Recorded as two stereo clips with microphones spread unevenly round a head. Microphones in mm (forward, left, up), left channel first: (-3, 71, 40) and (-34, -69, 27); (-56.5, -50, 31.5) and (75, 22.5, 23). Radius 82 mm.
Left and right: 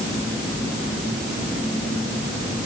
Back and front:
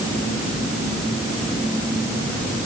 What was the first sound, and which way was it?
Only background noise.